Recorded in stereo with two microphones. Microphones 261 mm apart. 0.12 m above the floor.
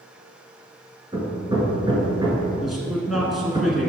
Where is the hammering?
15° right (ahead or behind), 1.4 m.